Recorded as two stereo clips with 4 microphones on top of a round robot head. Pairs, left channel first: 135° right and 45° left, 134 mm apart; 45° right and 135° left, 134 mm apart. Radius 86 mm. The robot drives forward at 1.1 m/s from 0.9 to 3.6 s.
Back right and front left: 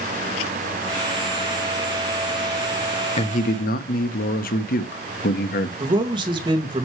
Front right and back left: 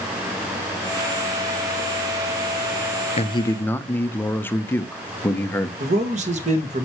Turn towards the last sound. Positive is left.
turn(degrees=100)